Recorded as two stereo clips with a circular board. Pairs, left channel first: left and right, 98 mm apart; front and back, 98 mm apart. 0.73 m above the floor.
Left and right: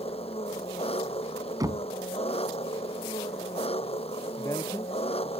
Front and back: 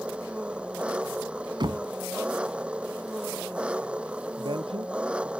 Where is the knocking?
140° right.